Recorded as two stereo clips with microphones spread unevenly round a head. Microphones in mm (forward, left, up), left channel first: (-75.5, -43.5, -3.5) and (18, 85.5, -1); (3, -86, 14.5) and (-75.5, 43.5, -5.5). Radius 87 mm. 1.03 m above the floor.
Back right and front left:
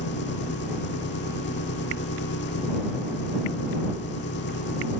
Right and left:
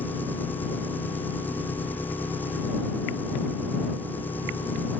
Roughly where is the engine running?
Behind right.